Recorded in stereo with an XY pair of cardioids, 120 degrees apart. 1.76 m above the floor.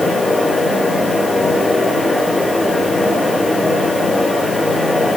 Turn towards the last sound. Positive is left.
turn(degrees=10)